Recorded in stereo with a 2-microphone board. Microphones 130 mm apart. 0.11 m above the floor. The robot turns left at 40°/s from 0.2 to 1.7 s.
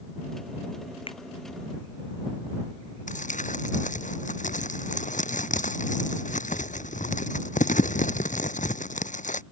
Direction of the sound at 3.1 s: 75° left (ahead or behind).